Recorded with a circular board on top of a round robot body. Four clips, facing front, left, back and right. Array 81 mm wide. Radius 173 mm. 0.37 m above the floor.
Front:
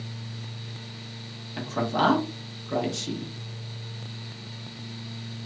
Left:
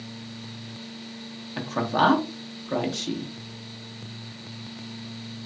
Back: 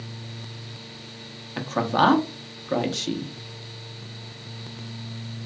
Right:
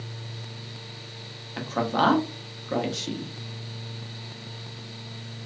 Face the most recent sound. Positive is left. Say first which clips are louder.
# left 1 dB, back 4 dB
turn(degrees=180)